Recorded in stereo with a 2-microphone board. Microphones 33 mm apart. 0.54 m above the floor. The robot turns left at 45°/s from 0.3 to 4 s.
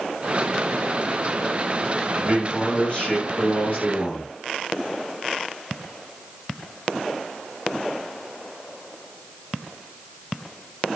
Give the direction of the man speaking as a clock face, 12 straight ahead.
6 o'clock.